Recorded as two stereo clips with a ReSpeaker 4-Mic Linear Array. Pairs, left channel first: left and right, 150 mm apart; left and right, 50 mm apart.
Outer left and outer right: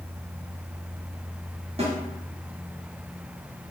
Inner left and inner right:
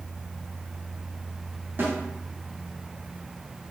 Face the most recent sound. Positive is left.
turn(degrees=-40)  # may be behind; listen again after turning